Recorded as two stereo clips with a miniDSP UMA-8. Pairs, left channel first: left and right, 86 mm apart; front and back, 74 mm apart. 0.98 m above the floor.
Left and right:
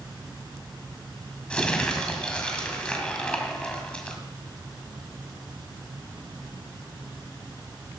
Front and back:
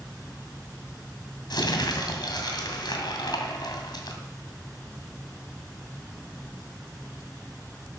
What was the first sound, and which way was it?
Crumpling, 15° left.